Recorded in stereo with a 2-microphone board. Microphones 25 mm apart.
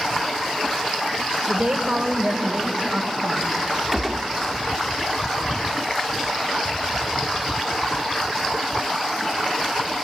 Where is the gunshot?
10° right (ahead or behind), 0.9 m.